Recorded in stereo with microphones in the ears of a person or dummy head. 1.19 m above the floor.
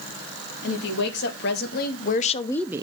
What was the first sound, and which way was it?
A woman speaking, 65° left (ahead or behind).